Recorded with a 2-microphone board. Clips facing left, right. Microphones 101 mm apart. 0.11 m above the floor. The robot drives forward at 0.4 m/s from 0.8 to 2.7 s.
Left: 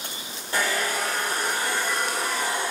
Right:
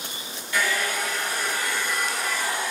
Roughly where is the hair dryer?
Left.